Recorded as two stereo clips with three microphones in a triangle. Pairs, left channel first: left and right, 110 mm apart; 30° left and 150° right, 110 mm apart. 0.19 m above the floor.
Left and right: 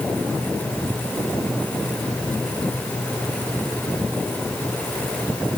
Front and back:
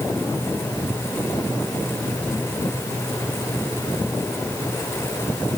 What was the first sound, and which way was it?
Only background noise.